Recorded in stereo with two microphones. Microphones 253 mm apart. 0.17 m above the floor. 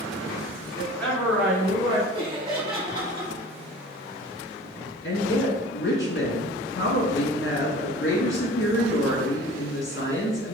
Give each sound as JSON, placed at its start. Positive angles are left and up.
{"t": 0.8, "sound": "a woman speaking", "side_deg": 10, "distance_m": 1.3}
{"t": 2.1, "sound": "laughter", "side_deg": -20, "distance_m": 2.0}
{"t": 5.0, "sound": "a woman speaking", "side_deg": 50, "distance_m": 1.6}